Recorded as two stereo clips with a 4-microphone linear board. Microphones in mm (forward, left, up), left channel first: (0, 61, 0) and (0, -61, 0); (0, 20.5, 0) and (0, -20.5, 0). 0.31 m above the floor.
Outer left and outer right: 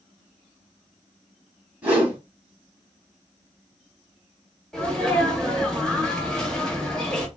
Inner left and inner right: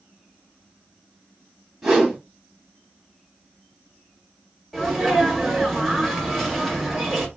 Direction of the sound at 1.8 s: 10° right (ahead or behind).